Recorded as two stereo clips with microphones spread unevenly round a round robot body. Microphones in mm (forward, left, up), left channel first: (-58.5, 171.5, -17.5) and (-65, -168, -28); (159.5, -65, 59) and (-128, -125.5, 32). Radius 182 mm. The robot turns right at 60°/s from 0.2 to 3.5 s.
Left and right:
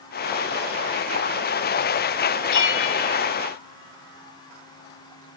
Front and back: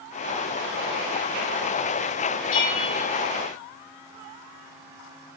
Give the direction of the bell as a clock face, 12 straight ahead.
10 o'clock.